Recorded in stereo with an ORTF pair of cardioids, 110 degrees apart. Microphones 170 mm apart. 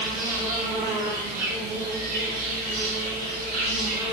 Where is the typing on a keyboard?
No typing on a keyboard in this recording.